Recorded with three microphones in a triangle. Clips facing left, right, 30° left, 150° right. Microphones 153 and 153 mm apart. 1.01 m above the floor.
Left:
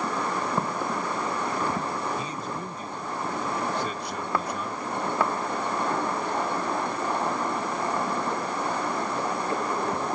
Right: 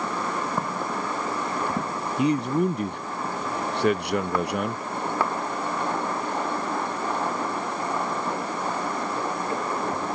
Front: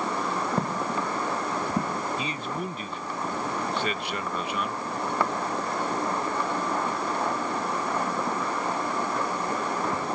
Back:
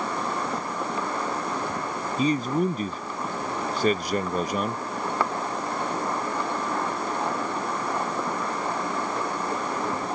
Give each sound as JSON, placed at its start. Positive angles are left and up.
{"t": 0.6, "sound": "footsteps", "azimuth_deg": 5}
{"t": 2.2, "sound": "a man speaking", "azimuth_deg": -100}